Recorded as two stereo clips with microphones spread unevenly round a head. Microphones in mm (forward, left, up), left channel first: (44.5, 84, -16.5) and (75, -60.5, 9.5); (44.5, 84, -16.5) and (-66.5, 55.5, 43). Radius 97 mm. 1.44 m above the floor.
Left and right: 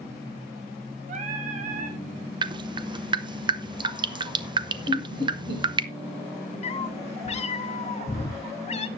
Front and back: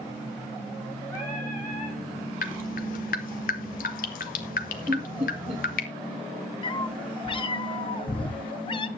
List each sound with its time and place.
1.1 s singing: 75° right, 2.5 m
2.4 s dripping: 25° right, 1.1 m
4.9 s laughter: 110° right, 6 m
6.6 s a cat meowing: 75° left, 1.2 m